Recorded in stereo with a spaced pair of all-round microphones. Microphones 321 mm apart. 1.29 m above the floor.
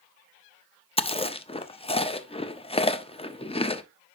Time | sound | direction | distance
1.0 | chewing | 20° left (ahead or behind) | 0.5 m